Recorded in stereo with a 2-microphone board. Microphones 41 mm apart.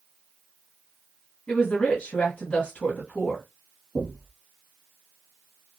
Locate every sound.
1.5 s a woman speaking: 30° left (ahead or behind), 1.4 m
4.0 s knocking: 30° right (ahead or behind), 1.4 m